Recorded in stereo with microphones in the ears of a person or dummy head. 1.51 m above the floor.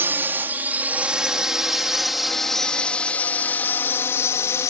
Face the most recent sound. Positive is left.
turn(degrees=20)  # may be behind; listen again after turning